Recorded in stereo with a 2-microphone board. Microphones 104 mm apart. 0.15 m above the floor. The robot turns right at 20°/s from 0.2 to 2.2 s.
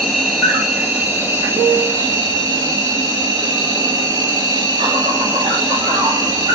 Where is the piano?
35° right (ahead or behind), 1.3 m; by 2.1 s 40° right (ahead or behind), 1.3 m.